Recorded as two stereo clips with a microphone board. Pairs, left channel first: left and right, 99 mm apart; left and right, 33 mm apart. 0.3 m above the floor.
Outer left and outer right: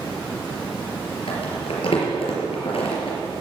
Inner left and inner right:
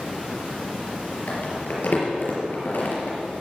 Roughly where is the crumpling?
Left.